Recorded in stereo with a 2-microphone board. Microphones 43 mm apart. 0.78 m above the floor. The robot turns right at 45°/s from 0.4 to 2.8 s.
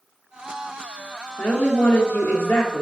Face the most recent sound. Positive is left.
turn(degrees=125)